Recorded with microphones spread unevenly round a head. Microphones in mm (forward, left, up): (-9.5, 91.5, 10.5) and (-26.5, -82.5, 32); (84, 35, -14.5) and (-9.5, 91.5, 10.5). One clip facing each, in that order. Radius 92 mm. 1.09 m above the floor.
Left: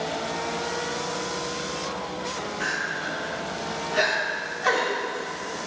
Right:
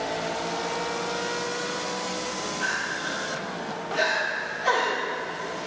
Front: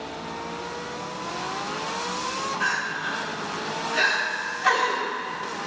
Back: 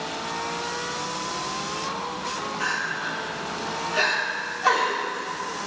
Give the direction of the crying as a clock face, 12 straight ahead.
9 o'clock.